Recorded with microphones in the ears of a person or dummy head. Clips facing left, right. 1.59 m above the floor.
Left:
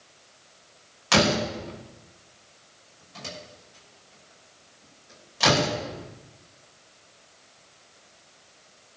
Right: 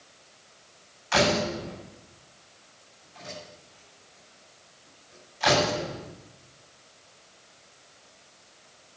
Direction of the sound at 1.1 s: 80° left.